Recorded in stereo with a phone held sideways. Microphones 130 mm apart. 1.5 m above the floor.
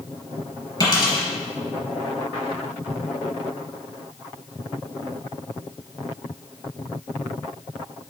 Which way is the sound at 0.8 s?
35° left (ahead or behind).